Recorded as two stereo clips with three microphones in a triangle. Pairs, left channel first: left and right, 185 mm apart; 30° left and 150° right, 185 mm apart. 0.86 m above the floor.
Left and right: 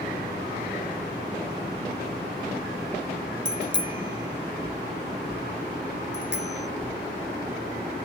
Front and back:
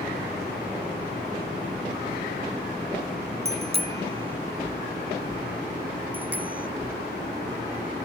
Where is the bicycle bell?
95° right; by 6.7 s 65° right.